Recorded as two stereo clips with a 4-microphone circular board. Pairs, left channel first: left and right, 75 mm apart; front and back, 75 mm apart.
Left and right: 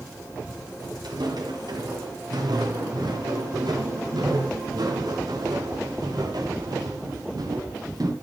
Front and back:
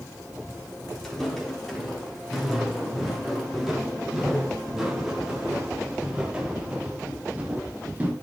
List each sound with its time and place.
1.0 s footsteps: 90° right, 8 m; by 8.1 s 115° right, 4 m